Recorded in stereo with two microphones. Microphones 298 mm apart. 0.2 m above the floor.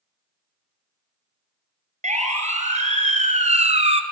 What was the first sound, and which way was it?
A siren, 25° right (ahead or behind).